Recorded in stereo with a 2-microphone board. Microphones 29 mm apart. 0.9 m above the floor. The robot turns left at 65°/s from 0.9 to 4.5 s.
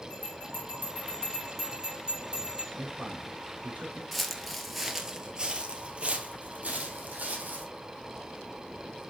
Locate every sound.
0.1 s a bell: 45° left, 5 m; by 2.7 s 70° right, 5 m
2.8 s a man speaking: 55° right (ahead or behind), 4 m; by 4.0 s 40° right (ahead or behind), 4 m
4.1 s footsteps: 5° left (ahead or behind), 1.1 m; by 7.7 s 65° right (ahead or behind), 2.5 m